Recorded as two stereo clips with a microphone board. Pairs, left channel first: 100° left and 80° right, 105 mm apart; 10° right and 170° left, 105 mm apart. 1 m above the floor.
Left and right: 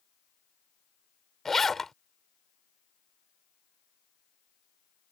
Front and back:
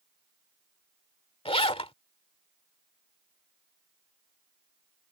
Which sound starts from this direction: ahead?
A zipper, at 1.4 s.